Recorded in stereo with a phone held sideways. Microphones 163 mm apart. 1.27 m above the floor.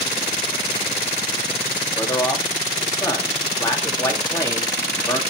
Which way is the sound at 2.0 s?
20° left (ahead or behind).